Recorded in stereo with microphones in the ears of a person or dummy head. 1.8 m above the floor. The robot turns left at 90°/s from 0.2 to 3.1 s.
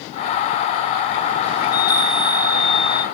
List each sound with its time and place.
1.6 s a chime: 15° right, 1.4 m; by 3.0 s 140° right, 1.4 m